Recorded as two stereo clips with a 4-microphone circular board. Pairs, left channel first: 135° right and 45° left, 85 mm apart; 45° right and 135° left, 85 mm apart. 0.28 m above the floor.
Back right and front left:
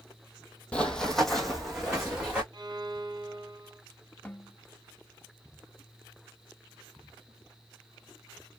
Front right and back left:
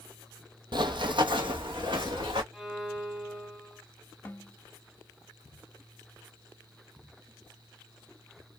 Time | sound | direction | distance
0.7 | running footsteps | 150° left | 0.6 m
2.5 | a violin | 50° left | 1.3 m
4.2 | a snare drum | 85° right | 0.7 m